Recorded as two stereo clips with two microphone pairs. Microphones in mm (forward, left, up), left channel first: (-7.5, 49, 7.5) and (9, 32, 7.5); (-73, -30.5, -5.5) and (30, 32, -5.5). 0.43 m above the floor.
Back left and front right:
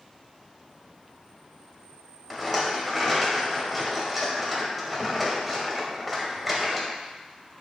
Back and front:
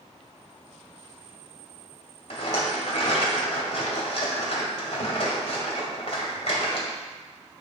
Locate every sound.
2.3 s a rattle: 140° right, 1.9 m